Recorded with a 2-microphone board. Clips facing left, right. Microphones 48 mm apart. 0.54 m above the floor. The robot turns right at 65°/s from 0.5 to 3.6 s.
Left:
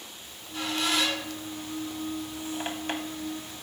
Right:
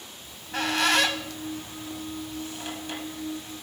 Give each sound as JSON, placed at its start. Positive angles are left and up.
{"t": 0.2, "sound": "a squeak", "side_deg": -75, "distance_m": 1.2}